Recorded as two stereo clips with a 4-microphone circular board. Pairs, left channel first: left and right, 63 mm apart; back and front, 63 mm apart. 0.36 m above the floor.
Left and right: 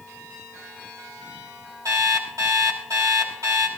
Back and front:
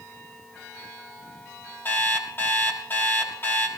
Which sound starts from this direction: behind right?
An alarm clock, at 1.9 s.